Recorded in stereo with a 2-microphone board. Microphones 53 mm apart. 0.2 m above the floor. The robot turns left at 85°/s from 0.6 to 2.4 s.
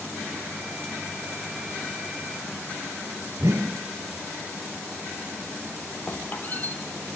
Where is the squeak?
30° left (ahead or behind), 3.5 m.